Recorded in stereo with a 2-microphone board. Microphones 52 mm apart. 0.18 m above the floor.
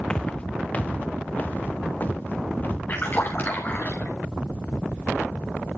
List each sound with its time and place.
0.1 s footsteps: 15° left (ahead or behind), 0.8 m; by 2.8 s 35° left (ahead or behind), 3.5 m
2.9 s a splash: 35° left (ahead or behind), 5 m